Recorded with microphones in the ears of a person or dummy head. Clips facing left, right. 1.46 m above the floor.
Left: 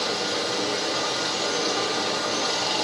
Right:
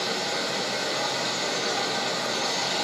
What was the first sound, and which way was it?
Running water, 45° left (ahead or behind).